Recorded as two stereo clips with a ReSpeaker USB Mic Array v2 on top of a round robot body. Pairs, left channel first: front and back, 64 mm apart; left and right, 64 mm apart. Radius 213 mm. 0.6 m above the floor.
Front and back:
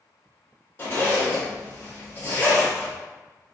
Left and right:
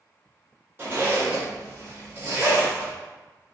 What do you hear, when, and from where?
0.8 s a zipper: 50° right, 1.6 m